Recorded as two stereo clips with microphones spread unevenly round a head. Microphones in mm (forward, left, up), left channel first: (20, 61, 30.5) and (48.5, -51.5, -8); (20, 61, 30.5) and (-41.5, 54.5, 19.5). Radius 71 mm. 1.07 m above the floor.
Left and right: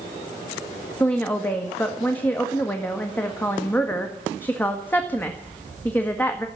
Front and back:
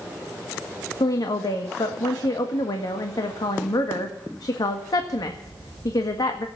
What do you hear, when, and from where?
1.0 s a woman speaking: 25° left, 1.6 m